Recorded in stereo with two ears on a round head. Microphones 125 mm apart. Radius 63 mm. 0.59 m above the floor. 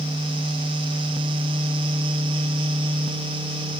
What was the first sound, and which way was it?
Only background noise.